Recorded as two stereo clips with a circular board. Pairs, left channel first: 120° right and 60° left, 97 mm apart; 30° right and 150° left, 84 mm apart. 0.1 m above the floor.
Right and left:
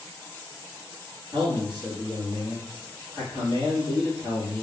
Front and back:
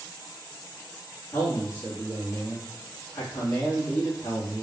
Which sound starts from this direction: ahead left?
A man speaking, at 1.3 s.